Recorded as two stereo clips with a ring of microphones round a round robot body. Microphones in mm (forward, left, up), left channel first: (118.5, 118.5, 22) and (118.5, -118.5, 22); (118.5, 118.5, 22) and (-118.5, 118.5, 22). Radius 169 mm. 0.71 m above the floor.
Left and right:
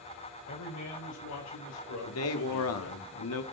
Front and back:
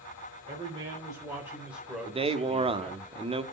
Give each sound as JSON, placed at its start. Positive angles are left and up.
{"t": 0.5, "sound": "a man speaking", "azimuth_deg": 120, "distance_m": 3.0}
{"t": 2.0, "sound": "a man speaking", "azimuth_deg": 115, "distance_m": 1.5}